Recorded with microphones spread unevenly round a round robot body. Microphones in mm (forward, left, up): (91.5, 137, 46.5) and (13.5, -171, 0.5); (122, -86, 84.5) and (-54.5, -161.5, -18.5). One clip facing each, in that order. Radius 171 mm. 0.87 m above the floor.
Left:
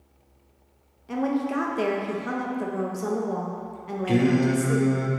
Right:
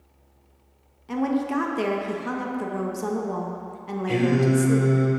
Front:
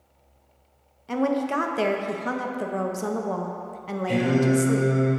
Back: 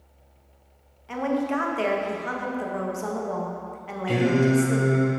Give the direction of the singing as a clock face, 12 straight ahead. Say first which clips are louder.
Even, back 1 dB; 8 o'clock.